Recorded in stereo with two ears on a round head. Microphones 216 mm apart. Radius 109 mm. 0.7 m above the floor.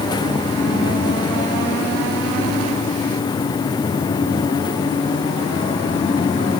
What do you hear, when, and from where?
Only background noise.